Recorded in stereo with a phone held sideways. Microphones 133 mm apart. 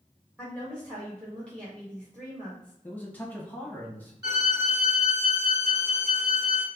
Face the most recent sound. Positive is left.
turn(degrees=-30)  # may be behind; listen again after turning